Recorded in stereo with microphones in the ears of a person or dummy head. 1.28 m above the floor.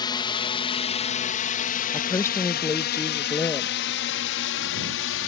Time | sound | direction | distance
0.0 | a drone | 15° left (ahead or behind) | ?
1.9 | a woman speaking | 20° left (ahead or behind) | ?